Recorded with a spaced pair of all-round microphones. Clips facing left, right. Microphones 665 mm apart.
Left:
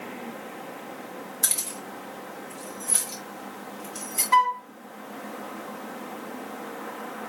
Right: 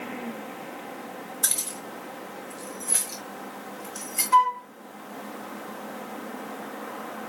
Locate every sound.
1.4 s keys jangling: 55° left (ahead or behind), 2.5 m; by 4.2 s 65° left (ahead or behind), 5 m
4.3 s a flute: 30° left (ahead or behind), 1.3 m